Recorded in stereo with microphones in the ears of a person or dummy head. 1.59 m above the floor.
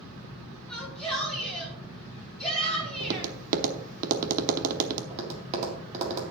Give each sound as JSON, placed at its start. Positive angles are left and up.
{"t": 0.7, "sound": "a shout", "side_deg": 0, "distance_m": 5.5}
{"t": 3.0, "sound": "tapping", "side_deg": -45, "distance_m": 0.9}
{"t": 5.1, "sound": "tapping", "side_deg": -35, "distance_m": 1.9}